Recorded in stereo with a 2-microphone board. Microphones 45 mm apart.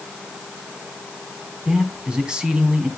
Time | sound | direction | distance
1.6 | a man speaking | 15° right (ahead or behind) | 3 m